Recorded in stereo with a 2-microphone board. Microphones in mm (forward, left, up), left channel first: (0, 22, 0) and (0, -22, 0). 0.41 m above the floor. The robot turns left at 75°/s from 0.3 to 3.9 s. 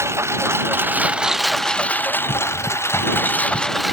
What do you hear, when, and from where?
0.0 s a lawn mower: 95° right; by 3.9 s 5° right